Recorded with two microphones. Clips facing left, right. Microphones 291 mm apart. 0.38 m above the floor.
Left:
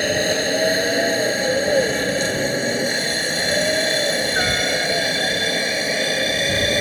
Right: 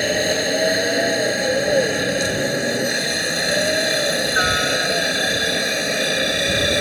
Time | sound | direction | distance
0.0 | a helicopter | centre (ahead or behind) | ?